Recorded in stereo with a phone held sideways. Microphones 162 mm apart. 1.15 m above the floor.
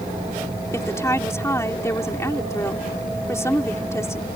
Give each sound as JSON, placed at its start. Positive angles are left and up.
{"t": 0.7, "sound": "a woman speaking", "side_deg": 15}